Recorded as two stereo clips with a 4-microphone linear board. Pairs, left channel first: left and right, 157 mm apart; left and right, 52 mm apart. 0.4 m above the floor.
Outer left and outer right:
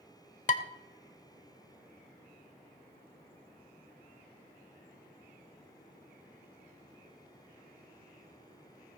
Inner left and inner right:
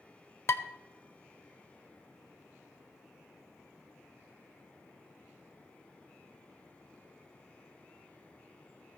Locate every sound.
0.5 s dishes clattering: 50° left (ahead or behind), 0.7 m